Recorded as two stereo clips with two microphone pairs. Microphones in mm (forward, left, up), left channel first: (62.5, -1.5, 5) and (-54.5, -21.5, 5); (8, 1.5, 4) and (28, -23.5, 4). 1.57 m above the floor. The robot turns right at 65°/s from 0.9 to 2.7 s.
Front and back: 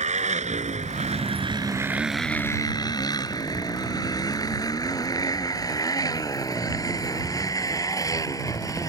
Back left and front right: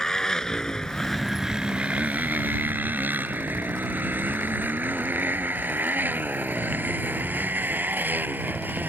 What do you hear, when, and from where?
0.0 s a motorcycle: 160° right; by 8.9 s 50° right